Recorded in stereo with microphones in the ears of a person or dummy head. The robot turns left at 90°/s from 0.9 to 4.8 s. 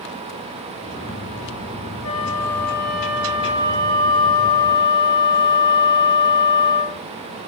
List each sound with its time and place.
2.0 s a flute: 105° left, 2.5 m; by 7.0 s 145° right, 2.5 m